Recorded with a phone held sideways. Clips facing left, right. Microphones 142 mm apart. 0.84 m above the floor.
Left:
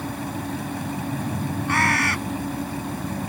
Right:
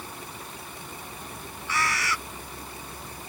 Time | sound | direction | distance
0.0 | a fan | 85° left | ?
1.7 | a bird | 60° left (ahead or behind) | ?